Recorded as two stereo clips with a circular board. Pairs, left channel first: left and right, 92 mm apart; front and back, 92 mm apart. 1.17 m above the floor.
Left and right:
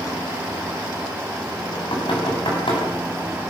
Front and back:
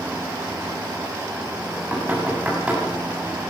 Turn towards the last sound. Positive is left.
turn(degrees=105)